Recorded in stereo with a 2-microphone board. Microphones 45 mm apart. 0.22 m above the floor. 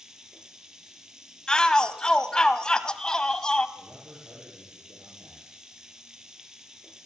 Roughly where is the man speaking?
Right.